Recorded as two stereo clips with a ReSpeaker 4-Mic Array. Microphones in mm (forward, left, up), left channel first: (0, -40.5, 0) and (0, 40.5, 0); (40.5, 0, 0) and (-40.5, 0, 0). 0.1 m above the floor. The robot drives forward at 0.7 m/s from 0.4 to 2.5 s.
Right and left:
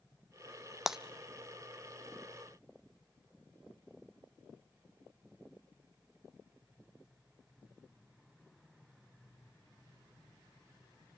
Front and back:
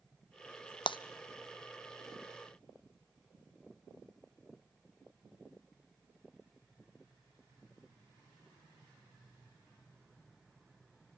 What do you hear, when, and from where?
0.9 s breaking glass: 5° left, 0.6 m